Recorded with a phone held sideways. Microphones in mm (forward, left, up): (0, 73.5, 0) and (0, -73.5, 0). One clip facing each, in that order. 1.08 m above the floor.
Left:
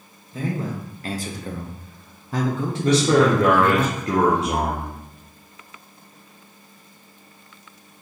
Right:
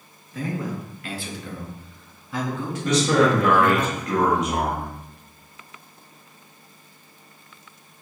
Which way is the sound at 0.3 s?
25° left (ahead or behind).